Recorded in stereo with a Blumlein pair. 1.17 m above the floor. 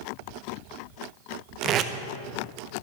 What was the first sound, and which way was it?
Tape being pulled, 30° right.